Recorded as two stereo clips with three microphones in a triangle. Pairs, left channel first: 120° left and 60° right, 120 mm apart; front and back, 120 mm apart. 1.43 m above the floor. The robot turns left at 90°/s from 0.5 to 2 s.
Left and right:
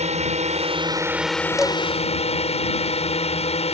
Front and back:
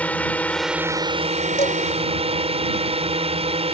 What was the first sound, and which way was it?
A drone, 80° right.